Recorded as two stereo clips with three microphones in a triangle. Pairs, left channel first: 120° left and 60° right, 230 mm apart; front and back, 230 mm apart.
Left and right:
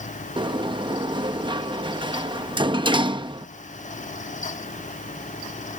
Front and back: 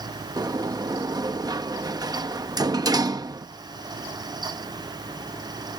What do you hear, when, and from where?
0.4 s a sliding door: 120° right